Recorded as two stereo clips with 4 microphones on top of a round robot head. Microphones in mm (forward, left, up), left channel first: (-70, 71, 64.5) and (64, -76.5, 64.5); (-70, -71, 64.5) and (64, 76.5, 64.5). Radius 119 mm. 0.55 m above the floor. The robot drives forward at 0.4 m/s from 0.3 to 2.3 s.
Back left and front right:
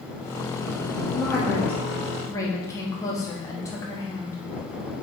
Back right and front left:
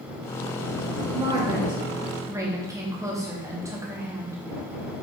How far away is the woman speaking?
About 1.3 m.